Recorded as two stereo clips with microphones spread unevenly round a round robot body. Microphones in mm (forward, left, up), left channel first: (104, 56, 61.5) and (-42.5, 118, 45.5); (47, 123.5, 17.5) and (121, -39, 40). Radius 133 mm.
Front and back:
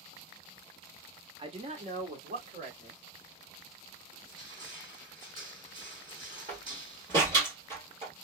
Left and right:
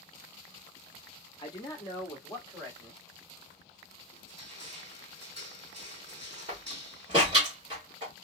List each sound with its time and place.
1.4 s a man speaking: 150° left, 0.9 m; by 3.0 s 165° right, 1.8 m
4.1 s crushing: 135° right, 2 m
6.5 s a door slam: 140° right, 1.8 m